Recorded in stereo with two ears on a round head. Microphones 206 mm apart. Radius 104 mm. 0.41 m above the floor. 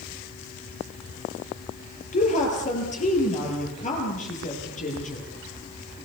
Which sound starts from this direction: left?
A woman speaking, at 2.1 s.